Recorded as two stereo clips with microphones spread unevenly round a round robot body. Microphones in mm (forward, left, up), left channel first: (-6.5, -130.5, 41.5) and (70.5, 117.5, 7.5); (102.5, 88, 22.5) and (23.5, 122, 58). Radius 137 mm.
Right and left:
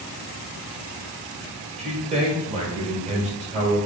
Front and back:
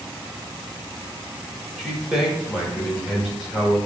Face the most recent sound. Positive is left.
turn(degrees=40)